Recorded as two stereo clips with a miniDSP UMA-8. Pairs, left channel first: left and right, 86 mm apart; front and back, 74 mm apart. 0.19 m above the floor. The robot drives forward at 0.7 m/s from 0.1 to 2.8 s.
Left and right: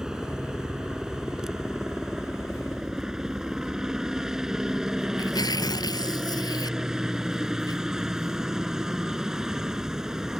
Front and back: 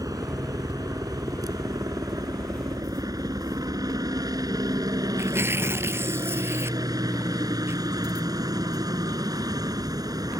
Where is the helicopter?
170° right.